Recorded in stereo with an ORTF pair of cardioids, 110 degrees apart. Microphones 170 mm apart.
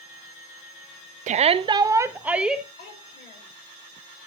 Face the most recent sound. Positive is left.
turn(degrees=65)